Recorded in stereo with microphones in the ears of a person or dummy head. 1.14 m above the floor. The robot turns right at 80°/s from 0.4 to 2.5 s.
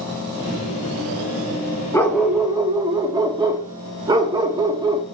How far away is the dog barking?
About 0.8 m.